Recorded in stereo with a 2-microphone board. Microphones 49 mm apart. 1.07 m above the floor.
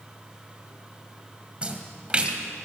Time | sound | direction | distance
1.6 | a splash | 25° right (ahead or behind) | 2.5 m